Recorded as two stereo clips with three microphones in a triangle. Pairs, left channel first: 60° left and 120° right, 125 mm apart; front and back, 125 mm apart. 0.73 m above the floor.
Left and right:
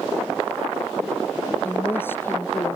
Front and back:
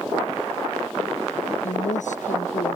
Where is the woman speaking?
15° right.